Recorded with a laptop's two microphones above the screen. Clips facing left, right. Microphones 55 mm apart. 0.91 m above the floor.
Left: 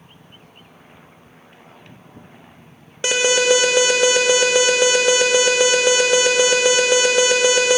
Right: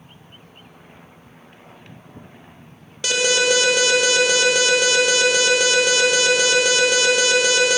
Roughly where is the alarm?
Left.